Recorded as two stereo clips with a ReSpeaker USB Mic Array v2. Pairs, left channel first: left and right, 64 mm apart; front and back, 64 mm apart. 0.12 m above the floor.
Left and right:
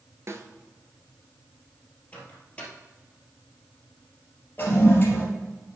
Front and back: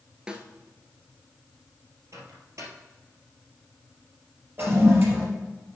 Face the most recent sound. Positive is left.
turn(degrees=140)